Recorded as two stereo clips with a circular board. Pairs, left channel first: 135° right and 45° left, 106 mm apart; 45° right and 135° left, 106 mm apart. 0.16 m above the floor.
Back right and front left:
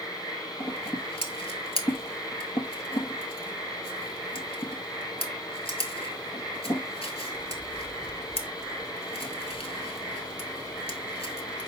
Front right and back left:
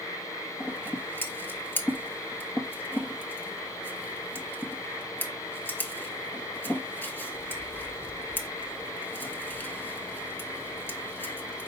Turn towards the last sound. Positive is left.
turn(degrees=-115)